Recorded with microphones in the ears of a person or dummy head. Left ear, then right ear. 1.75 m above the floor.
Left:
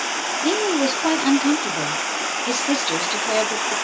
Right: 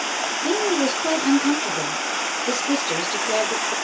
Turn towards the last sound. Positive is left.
turn(degrees=25)  # may be behind; listen again after turning